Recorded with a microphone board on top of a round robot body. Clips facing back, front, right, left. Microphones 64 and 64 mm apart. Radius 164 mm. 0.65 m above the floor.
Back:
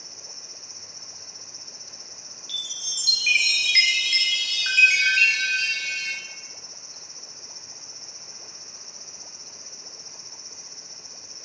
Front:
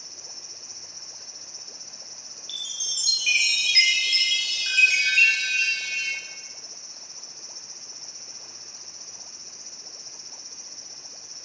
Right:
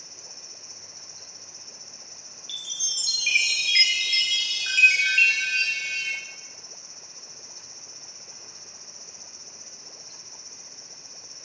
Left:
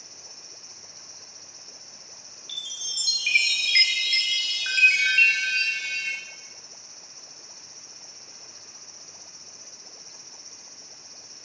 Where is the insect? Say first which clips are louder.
Back 1 dB, right 1 dB; 160° right, 1.2 m.